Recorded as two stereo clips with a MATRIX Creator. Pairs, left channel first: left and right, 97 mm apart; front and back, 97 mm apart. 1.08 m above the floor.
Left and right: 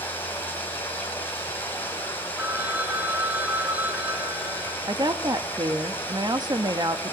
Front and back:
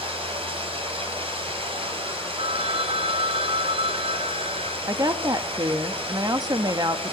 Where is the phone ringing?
160° right, 2.5 m.